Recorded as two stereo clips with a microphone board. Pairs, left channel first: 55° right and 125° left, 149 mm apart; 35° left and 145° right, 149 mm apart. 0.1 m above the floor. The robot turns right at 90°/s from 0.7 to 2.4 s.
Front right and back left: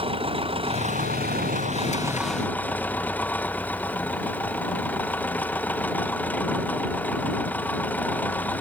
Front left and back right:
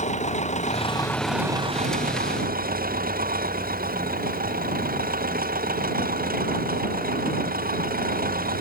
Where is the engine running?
75° left; by 8.6 s 135° right.